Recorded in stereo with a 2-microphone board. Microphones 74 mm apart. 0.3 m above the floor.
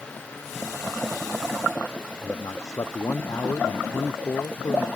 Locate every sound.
2.2 s a man speaking: 45° left (ahead or behind)